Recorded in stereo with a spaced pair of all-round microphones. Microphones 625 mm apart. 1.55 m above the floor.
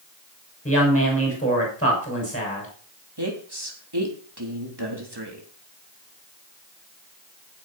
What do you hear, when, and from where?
0.7 s a woman speaking: 10° left (ahead or behind), 6 m
3.2 s a woman speaking: 40° right (ahead or behind), 3.5 m